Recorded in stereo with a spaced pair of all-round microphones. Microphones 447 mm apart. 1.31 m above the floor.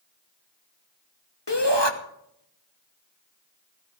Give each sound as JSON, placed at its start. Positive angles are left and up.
{"t": 1.5, "sound": "a shout", "side_deg": 65, "distance_m": 2.5}